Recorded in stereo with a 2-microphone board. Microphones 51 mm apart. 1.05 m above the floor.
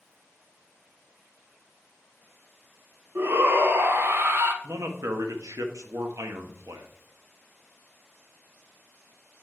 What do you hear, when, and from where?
3.1 s a shout: 50° right (ahead or behind), 1.2 m
4.6 s a man speaking: 85° right, 1.1 m